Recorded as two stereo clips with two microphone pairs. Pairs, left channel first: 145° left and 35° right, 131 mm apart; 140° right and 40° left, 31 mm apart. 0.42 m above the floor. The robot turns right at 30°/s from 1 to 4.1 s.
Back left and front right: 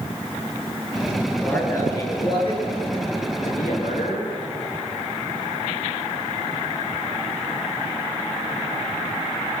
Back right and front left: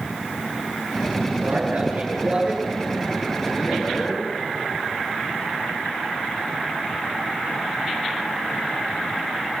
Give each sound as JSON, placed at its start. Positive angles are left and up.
{"t": 1.4, "sound": "a man speaking", "azimuth_deg": 70, "distance_m": 7.5}